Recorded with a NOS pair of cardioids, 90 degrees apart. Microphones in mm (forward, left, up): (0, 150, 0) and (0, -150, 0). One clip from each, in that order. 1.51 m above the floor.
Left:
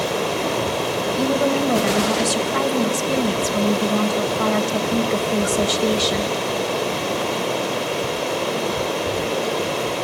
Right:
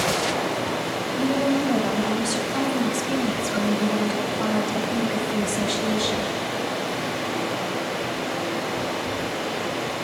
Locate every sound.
0.0 s running water: 70° left, 5 m
1.2 s a woman speaking: 45° left, 2.5 m